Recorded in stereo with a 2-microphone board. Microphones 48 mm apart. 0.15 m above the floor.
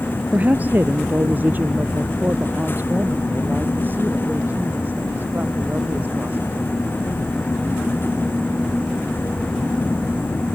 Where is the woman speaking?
35° right (ahead or behind); by 7.2 s 40° right (ahead or behind).